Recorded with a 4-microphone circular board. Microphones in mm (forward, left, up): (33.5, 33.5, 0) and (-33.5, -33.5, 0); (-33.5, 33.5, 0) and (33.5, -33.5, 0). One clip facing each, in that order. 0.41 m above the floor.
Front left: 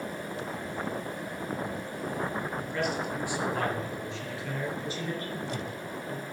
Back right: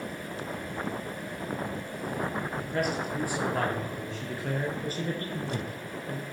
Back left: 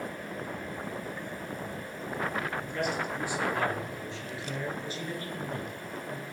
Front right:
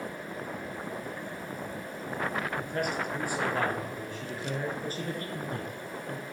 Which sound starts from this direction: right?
A man speaking, at 2.6 s.